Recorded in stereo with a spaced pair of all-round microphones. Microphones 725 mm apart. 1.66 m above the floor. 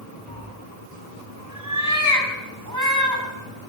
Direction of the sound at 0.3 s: 25° right (ahead or behind).